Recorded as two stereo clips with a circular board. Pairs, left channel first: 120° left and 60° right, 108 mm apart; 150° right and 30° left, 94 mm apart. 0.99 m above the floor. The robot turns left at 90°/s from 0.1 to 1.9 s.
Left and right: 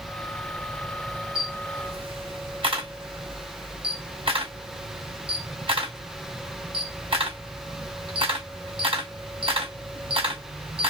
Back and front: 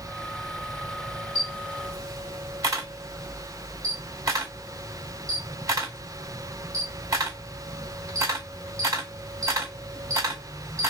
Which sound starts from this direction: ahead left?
A camera shutter, at 1.4 s.